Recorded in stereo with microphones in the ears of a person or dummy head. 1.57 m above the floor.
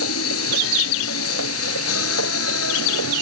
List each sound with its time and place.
0.0 s a machine running: 80° left